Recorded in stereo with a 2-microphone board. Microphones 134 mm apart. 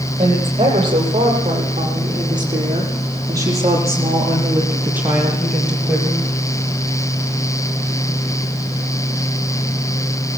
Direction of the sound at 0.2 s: 45° right (ahead or behind).